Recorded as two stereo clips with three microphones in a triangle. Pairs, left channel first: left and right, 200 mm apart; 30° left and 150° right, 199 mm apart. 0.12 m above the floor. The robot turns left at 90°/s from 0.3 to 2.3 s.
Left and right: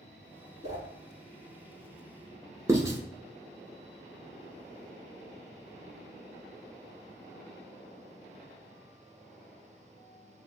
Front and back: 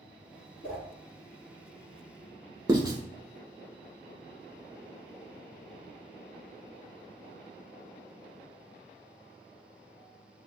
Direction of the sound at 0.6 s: 150° right.